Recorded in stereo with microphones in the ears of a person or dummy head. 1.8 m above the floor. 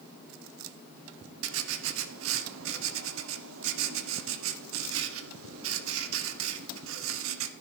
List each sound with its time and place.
1.4 s writing: 85° right, 1.2 m